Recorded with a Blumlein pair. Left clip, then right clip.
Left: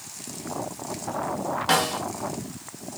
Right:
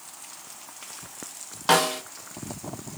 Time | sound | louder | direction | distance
1.7 | a snare drum | right 3 dB | 10° right | 0.5 m